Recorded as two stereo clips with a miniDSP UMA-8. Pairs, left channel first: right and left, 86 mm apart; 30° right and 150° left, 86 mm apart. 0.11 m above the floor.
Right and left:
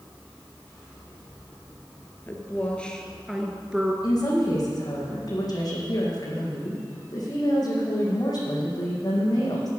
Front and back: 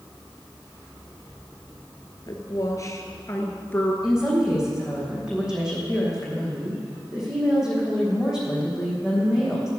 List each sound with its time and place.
2.3 s a woman speaking: 35° right, 1.6 m; by 3.9 s 25° left, 1.5 m
4.0 s a woman speaking: 130° right, 4.5 m